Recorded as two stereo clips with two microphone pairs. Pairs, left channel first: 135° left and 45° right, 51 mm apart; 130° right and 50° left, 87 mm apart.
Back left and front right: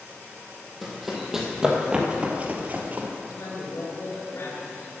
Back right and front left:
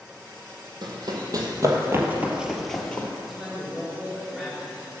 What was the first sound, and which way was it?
Running footsteps, 45° left.